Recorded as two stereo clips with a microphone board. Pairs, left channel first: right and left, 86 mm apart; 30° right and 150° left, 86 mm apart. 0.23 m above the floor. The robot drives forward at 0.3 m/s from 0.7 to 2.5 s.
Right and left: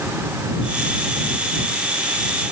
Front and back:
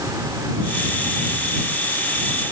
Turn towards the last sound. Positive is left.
No sound to turn to.